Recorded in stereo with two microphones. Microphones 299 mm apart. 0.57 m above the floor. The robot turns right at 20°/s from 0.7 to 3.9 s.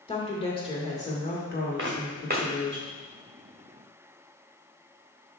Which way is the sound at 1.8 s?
40° right (ahead or behind).